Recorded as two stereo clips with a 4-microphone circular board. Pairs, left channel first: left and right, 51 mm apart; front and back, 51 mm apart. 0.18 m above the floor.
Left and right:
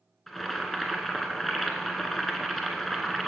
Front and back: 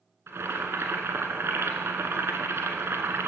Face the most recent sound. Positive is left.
turn(degrees=180)